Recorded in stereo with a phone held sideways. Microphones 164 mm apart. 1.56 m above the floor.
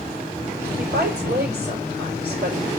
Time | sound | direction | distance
0.8 | a woman speaking | 80° right | 5.5 m